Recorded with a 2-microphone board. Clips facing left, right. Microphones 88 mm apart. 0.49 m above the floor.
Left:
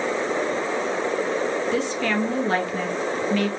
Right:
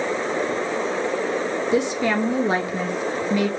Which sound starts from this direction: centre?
A woman speaking, at 1.7 s.